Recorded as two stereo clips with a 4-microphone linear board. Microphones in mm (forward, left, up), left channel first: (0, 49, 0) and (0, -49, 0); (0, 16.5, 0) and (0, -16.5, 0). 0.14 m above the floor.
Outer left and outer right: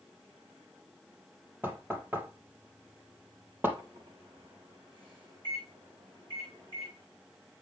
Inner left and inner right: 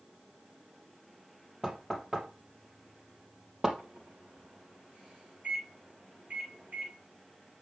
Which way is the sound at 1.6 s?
20° right (ahead or behind).